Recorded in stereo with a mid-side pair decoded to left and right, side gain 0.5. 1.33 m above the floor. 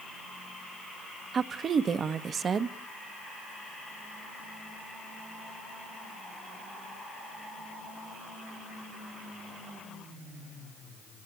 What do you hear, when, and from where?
1.3 s a woman speaking: 45° right, 1.1 m